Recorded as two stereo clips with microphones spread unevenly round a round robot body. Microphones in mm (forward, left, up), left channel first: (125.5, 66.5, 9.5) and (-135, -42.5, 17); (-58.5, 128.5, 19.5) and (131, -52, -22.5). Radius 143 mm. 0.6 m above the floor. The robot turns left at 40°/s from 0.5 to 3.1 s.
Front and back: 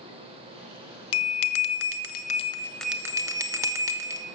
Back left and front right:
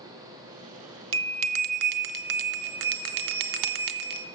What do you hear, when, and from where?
1.1 s a bell: straight ahead, 0.6 m; by 4.3 s 75° right, 0.6 m